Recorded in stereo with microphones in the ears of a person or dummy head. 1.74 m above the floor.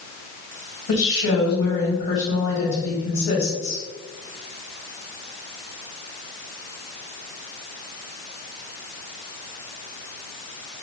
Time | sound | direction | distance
0.9 | a woman speaking | 65° left (ahead or behind) | 1.9 m